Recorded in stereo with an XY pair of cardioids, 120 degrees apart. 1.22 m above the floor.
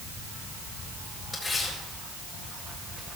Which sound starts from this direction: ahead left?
Tearing paper, at 1.3 s.